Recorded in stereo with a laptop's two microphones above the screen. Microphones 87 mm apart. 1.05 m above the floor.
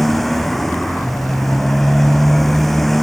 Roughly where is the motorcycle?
Centre.